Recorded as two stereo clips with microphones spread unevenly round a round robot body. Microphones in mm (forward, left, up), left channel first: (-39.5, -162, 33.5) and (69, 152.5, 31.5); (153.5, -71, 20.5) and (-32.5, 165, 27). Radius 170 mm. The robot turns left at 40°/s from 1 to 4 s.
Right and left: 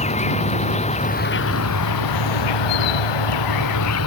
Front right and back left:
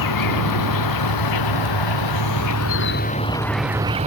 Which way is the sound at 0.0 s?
40° right.